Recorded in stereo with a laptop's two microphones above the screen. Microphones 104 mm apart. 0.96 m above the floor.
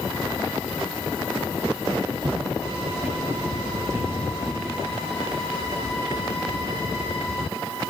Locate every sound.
2.2 s footsteps: 45° right (ahead or behind), 1.6 m; by 4.6 s 25° right (ahead or behind), 4.5 m